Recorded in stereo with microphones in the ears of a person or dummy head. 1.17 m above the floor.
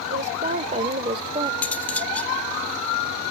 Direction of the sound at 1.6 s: 20° left (ahead or behind).